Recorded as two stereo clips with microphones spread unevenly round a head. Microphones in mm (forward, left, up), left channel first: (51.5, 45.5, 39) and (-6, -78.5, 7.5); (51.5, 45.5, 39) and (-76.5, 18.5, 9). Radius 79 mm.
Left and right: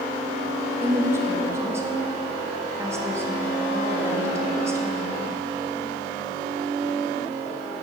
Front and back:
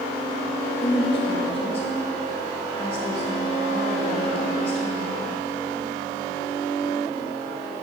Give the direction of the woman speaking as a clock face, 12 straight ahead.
2 o'clock.